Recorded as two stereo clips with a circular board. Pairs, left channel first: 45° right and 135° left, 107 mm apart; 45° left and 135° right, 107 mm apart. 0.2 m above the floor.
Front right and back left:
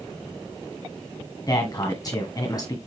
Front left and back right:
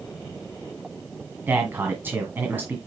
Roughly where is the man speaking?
Right.